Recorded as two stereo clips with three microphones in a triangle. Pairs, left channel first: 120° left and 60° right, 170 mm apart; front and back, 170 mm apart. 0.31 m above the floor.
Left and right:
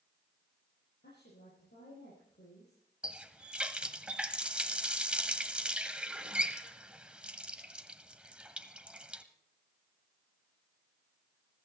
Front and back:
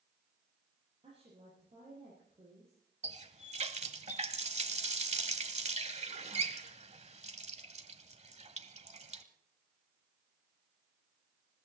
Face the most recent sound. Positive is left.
turn(degrees=-145)